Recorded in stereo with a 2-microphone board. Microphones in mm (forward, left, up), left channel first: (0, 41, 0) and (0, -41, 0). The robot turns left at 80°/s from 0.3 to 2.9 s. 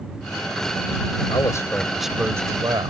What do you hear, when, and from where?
1.3 s a man speaking: 55° left; by 2.9 s 70° right